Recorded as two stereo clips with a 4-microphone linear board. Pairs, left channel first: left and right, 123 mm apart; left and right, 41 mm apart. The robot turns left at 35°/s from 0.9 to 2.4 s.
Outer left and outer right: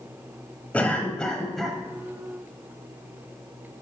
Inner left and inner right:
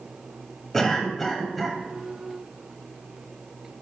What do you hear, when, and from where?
0.7 s a cough: 10° left (ahead or behind), 0.9 m; by 1.8 s centre (ahead or behind), 0.9 m